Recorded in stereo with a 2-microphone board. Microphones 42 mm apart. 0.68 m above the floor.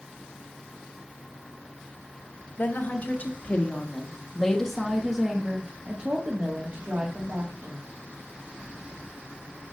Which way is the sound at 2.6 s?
50° left (ahead or behind).